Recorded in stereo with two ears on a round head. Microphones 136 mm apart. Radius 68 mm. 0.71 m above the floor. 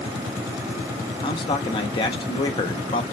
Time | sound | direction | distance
1.2 | a man speaking | 30° left (ahead or behind) | 0.8 m